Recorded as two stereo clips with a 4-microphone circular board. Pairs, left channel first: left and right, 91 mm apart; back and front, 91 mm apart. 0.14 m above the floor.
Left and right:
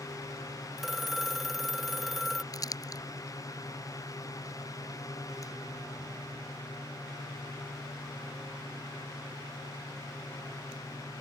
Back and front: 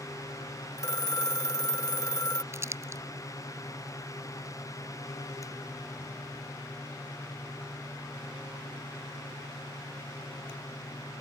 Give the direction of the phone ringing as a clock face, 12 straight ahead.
6 o'clock.